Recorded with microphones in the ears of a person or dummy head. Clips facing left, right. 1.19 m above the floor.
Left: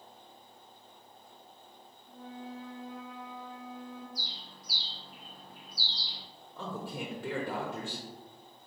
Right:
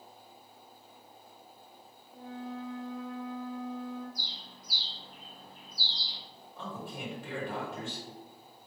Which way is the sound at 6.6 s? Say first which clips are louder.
Left 2 dB; 55° left (ahead or behind).